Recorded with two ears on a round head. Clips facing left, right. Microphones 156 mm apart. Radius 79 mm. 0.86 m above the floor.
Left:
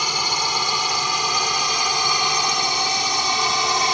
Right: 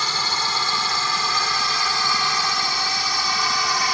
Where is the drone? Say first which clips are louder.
Left 2 dB; 15° left (ahead or behind); by 4.0 s 20° left (ahead or behind).